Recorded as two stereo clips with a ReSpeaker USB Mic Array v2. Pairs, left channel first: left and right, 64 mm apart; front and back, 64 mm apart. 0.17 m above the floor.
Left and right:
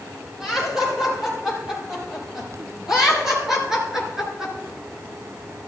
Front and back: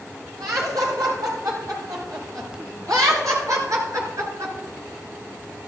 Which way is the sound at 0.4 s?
175° right.